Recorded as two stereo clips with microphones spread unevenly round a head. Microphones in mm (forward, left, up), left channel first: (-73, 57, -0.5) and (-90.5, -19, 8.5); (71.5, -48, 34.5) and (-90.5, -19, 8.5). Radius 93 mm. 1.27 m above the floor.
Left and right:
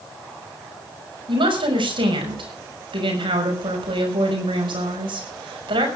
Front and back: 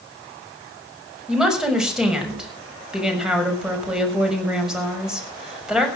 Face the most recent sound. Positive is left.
turn(degrees=-105)